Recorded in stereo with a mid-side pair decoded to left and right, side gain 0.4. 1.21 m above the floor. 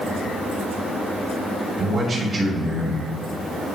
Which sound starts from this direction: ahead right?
A man speaking, at 1.8 s.